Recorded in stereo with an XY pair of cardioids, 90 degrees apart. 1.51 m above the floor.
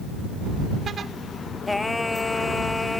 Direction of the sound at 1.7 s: 20° left.